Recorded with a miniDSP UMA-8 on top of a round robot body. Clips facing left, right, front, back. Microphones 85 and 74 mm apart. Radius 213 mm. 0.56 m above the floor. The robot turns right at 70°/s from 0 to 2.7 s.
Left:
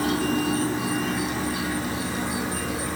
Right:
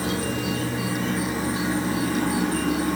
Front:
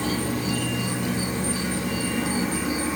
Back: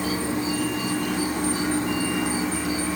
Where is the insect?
100° left, 3.5 m; by 3.0 s 75° right, 3.5 m.